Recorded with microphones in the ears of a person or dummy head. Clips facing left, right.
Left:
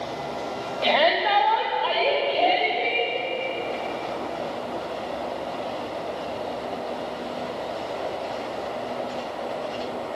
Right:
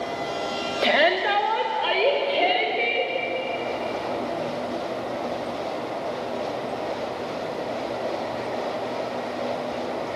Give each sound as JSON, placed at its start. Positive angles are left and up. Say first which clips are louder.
{"t": 0.8, "sound": "a shout", "louder": "even", "side_deg": -30, "distance_m": 2.5}